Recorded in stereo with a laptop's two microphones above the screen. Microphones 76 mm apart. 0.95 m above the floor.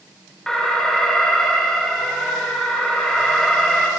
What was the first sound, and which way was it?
An alarm, 5° left (ahead or behind).